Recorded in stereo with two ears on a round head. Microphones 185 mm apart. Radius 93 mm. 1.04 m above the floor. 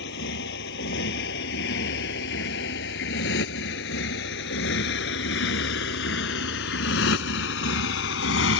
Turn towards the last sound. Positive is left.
turn(degrees=60)  # may be behind; listen again after turning